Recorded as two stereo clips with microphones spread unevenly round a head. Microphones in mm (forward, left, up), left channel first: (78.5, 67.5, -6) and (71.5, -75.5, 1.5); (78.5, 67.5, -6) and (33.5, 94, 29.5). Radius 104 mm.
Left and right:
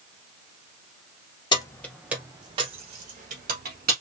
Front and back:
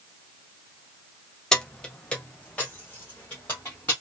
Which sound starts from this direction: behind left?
Keys jangling, at 1.5 s.